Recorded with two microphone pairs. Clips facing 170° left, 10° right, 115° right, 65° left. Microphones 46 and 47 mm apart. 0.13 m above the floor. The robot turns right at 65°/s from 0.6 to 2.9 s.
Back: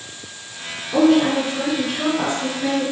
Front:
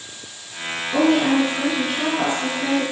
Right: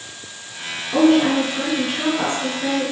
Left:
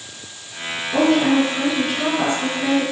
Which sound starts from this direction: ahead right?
A woman speaking, at 0.9 s.